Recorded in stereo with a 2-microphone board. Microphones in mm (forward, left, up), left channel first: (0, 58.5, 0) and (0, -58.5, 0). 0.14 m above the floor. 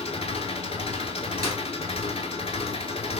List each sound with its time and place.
0.0 s an engine running: 60° left (ahead or behind), 0.7 m
1.4 s a clap: 30° right (ahead or behind), 1.6 m